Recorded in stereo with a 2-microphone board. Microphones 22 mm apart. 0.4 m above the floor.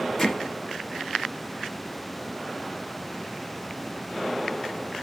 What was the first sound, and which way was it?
Hammering, 15° left (ahead or behind).